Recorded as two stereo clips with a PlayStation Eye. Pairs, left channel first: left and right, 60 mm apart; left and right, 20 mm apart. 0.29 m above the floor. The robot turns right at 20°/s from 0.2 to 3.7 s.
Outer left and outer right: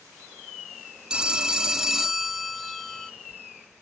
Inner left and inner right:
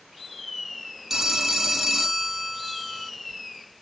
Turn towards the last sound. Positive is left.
turn(degrees=25)